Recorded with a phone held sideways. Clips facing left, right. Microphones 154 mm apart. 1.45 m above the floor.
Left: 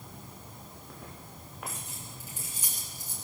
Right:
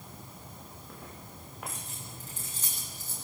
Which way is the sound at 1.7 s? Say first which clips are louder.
Even; 5° left (ahead or behind).